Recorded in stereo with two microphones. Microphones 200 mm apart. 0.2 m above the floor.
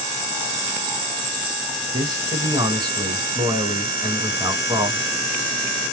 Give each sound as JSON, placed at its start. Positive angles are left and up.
{"t": 1.9, "sound": "a man speaking", "side_deg": -20, "distance_m": 1.2}